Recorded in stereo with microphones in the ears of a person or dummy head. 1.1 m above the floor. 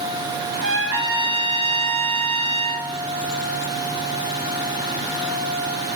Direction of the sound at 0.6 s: 65° right (ahead or behind).